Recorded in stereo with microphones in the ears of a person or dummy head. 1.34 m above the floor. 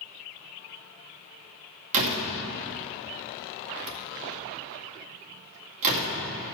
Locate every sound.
1.9 s a door slam: 35° right (ahead or behind), 2 m